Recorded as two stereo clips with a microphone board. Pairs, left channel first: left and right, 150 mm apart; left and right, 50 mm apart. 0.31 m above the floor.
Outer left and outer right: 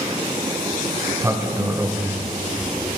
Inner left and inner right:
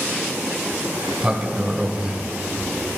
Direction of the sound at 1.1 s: 20° right (ahead or behind).